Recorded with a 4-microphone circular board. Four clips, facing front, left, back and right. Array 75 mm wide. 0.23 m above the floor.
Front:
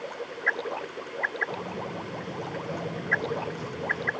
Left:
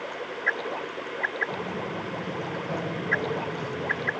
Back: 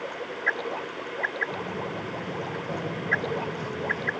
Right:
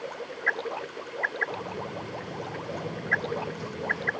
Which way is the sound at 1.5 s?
110° left.